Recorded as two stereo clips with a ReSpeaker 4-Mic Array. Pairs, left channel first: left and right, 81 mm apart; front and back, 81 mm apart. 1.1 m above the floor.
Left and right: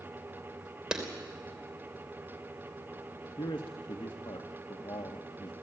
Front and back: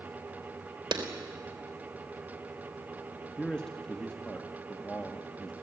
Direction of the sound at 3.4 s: 80° left.